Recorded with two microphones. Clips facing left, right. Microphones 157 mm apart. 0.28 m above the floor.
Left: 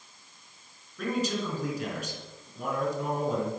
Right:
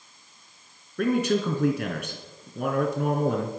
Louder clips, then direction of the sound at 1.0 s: Right 7 dB; 65° right (ahead or behind).